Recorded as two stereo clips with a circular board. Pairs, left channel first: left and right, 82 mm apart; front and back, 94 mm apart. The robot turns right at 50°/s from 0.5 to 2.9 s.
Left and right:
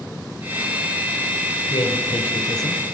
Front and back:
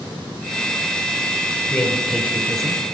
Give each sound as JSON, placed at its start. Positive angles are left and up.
{"t": 1.7, "sound": "a man speaking", "azimuth_deg": 80, "distance_m": 3.5}